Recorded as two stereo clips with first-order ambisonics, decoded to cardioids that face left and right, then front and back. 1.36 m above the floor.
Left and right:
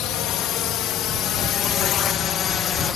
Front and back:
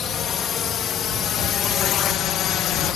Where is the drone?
60° left; by 3.0 s 35° left.